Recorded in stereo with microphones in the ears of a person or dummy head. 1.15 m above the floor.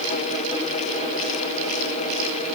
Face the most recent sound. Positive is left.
No sound to turn to.